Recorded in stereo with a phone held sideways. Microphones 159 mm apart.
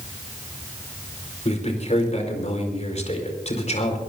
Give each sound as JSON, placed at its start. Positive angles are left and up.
{"t": 1.4, "sound": "a man speaking", "side_deg": 45, "distance_m": 5.0}